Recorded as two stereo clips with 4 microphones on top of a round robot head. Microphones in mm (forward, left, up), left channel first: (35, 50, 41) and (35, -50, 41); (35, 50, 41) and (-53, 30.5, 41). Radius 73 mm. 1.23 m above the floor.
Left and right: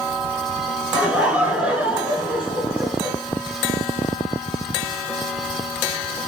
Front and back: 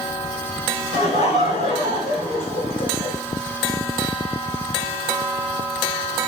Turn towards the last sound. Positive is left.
turn(degrees=-15)